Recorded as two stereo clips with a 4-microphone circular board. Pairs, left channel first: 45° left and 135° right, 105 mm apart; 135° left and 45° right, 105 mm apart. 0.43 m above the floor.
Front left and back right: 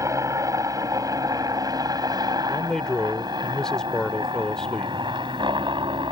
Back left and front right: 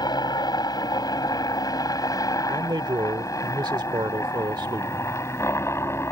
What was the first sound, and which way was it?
A helicopter, 175° left.